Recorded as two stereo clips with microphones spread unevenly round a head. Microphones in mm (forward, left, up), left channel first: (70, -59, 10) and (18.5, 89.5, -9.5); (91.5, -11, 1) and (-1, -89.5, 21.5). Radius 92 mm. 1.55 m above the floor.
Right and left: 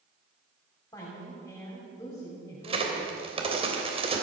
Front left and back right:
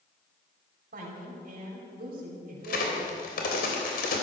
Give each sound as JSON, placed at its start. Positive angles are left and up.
{"t": 0.9, "sound": "a woman speaking", "azimuth_deg": -145, "distance_m": 4.0}
{"t": 2.6, "sound": "a crack", "azimuth_deg": 55, "distance_m": 3.0}